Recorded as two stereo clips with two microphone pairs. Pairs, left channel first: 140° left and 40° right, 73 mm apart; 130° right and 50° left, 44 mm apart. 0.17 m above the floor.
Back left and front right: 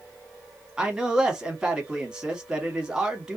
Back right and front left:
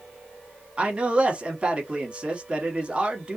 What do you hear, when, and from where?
0.8 s a man speaking: 20° left, 1.1 m